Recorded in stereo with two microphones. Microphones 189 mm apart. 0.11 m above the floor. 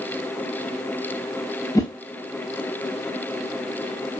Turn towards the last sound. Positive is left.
turn(degrees=15)  # may be behind; listen again after turning